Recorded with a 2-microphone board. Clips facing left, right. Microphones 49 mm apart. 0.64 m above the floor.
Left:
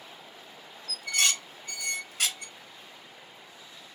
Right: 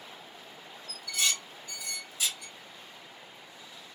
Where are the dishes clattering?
65° left (ahead or behind), 0.6 m.